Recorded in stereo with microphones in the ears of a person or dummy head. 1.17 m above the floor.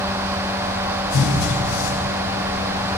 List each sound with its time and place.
1.1 s a cupboard door: 75° left (ahead or behind), 4.5 m